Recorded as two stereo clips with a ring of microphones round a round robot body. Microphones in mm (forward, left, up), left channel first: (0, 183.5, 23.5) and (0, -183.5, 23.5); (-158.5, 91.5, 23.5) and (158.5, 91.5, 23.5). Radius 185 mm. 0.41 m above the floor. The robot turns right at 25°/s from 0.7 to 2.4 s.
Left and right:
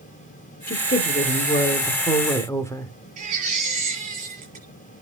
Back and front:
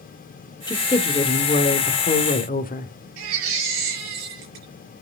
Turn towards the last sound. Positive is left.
turn(degrees=-20)